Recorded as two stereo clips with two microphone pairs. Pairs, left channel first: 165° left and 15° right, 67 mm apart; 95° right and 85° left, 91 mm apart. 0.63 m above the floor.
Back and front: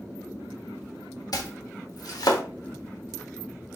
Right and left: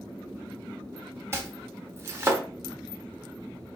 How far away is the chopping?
About 1.0 m.